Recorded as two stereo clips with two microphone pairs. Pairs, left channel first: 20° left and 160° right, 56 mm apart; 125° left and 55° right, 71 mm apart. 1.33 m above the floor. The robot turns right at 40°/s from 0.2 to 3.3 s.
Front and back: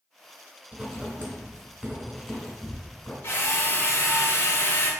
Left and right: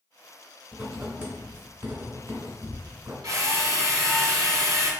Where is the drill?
20° right, 0.7 m.